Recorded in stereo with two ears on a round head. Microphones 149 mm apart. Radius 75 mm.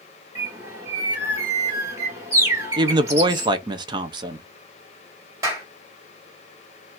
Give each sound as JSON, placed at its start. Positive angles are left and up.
{"t": 0.3, "sound": "a bird", "side_deg": -20, "distance_m": 2.0}
{"t": 2.8, "sound": "a woman speaking", "side_deg": -30, "distance_m": 0.6}
{"t": 5.4, "sound": "a clap", "side_deg": -20, "distance_m": 2.5}